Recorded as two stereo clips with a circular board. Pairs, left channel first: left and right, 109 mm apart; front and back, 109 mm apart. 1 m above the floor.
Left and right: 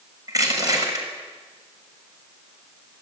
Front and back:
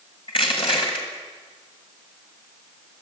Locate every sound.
0.3 s crushing: 35° right, 6.5 m